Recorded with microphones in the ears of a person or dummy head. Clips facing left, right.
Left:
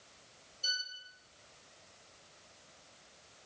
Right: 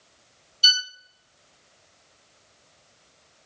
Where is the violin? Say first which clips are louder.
Right 12 dB; 85° right, 0.6 m.